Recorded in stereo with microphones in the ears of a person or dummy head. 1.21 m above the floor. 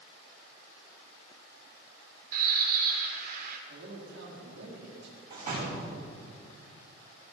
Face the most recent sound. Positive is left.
turn(degrees=-50)  # may be behind; listen again after turning